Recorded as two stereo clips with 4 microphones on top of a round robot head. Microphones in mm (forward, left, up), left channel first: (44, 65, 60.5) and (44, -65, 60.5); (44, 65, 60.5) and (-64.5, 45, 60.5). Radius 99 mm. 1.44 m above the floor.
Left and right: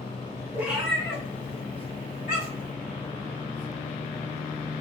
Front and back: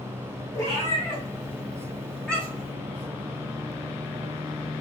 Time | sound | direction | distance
0.5 | a cat meowing | 35° right | 0.7 m